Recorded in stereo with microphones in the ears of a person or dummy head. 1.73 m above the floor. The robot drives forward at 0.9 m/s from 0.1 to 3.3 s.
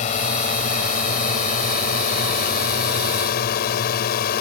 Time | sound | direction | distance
0.0 | a drone | 50° left (ahead or behind) | ?